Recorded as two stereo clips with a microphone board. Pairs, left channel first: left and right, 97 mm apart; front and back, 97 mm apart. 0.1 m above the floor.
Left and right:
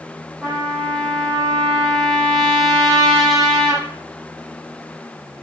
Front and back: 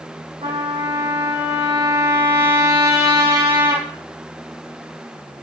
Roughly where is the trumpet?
Behind.